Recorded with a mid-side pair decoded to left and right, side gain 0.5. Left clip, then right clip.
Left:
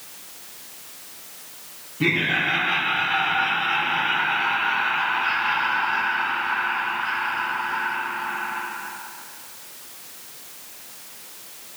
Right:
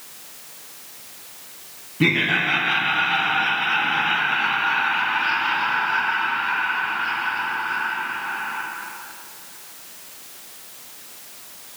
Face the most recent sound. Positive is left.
turn(degrees=-75)